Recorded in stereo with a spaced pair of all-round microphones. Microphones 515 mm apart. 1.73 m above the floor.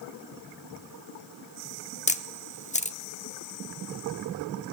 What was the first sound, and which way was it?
A camera shutter, 15° left (ahead or behind).